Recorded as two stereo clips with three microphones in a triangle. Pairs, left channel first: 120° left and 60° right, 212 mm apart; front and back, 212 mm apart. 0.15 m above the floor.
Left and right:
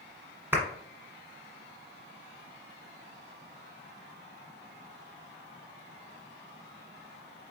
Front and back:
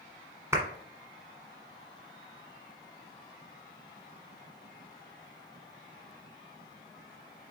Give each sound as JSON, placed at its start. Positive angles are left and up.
{"t": 0.5, "sound": "a clap", "azimuth_deg": -120, "distance_m": 1.3}